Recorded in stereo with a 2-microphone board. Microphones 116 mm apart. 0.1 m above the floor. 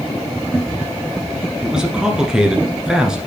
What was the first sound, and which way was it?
A man speaking, 5° right (ahead or behind).